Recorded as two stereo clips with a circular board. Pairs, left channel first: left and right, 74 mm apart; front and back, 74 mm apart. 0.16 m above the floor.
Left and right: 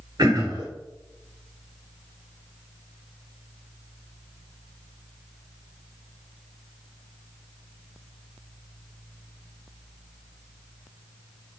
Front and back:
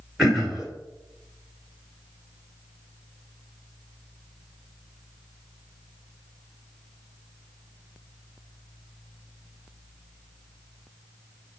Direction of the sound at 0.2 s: 95° right.